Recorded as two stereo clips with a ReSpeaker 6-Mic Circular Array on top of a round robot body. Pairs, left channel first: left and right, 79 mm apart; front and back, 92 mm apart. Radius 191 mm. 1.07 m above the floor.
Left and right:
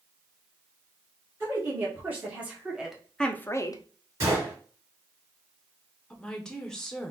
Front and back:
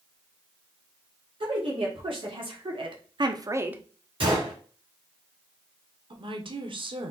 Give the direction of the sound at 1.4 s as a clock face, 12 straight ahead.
5 o'clock.